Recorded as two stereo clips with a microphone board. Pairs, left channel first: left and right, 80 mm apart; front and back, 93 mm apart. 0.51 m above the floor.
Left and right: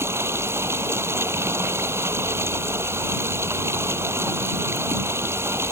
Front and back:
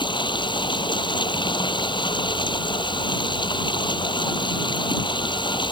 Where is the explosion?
No explosion in this recording.